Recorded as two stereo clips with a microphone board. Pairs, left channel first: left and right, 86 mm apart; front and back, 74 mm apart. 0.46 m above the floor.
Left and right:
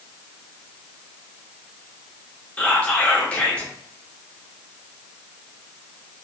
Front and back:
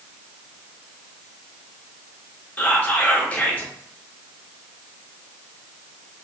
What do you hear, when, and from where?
2.6 s whispering: 35° left, 0.8 m